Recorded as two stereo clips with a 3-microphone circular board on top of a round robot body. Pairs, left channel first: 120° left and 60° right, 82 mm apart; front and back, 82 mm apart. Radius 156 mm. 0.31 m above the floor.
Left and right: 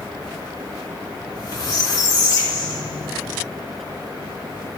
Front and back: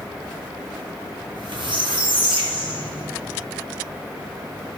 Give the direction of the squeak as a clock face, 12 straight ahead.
6 o'clock.